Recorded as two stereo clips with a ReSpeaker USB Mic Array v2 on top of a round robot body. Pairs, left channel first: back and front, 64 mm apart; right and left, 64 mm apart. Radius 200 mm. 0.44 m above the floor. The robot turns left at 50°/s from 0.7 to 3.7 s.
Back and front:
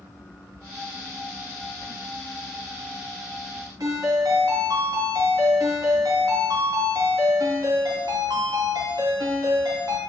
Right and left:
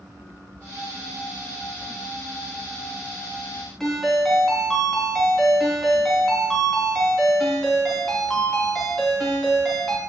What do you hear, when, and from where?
3.8 s a ringtone: 5° right, 3 m